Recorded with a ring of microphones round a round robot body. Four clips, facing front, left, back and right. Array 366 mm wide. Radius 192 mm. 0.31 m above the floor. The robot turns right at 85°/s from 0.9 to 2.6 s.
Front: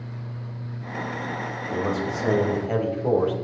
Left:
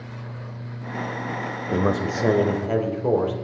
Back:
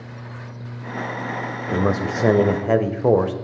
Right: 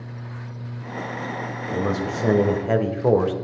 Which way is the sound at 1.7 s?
130° left.